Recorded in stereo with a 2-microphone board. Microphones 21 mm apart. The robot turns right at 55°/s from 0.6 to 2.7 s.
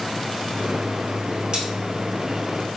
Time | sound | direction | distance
1.5 | cutlery clinking | 40° right (ahead or behind) | 1.7 m